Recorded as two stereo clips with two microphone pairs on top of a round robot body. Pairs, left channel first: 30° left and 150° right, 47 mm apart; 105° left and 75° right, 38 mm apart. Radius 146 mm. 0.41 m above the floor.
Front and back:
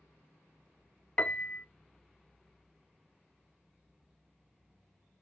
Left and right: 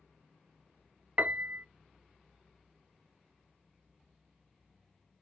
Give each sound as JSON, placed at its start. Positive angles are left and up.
{"t": 1.2, "sound": "a piano", "azimuth_deg": -30, "distance_m": 0.6}